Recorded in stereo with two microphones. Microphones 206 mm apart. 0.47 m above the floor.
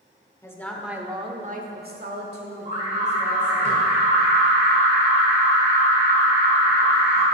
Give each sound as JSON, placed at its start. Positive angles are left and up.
{"t": 0.4, "sound": "a woman speaking", "side_deg": 15, "distance_m": 1.2}
{"t": 2.6, "sound": "an alarm", "side_deg": -35, "distance_m": 3.0}